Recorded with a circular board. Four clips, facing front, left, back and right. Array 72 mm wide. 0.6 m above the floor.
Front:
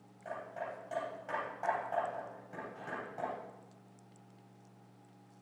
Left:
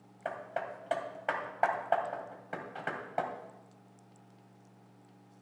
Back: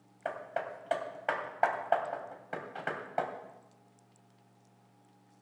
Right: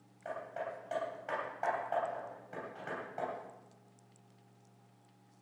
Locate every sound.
0.2 s hammering: 140° left, 2.5 m